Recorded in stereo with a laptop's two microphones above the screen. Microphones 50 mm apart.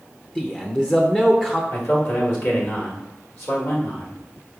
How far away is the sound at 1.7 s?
About 1.5 m.